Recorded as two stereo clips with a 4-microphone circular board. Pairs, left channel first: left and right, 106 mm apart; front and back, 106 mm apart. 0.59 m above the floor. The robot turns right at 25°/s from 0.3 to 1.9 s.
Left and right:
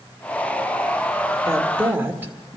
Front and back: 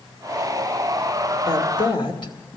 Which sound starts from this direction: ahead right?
A woman speaking, at 1.5 s.